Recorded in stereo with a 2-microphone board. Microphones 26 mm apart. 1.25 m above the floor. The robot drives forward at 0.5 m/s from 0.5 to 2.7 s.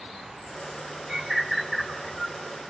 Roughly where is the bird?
Centre.